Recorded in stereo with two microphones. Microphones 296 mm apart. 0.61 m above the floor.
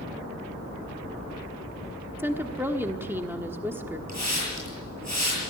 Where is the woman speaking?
5° right (ahead or behind), 1.3 m.